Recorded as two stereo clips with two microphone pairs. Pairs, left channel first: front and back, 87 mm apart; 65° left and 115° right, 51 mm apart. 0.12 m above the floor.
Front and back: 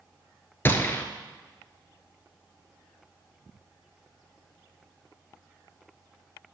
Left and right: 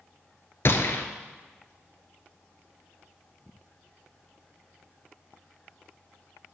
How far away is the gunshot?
About 0.8 m.